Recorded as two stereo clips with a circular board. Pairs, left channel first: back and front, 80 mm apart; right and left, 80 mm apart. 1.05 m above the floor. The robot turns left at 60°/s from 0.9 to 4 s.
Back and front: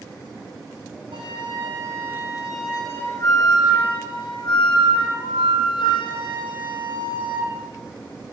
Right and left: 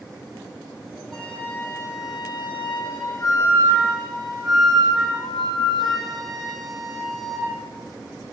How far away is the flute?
About 9.5 m.